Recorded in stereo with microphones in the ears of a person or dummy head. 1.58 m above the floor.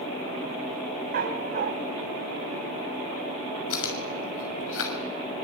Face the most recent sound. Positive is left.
turn(degrees=85)